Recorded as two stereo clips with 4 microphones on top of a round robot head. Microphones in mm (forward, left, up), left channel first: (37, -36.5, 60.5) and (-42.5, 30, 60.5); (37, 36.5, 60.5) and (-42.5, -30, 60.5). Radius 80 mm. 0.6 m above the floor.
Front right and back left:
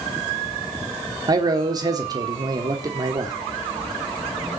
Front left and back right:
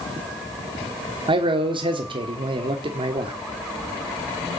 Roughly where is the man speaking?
Behind.